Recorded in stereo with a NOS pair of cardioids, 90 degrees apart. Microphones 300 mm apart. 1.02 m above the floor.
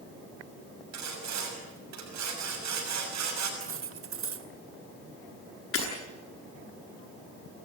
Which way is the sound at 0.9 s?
65° right.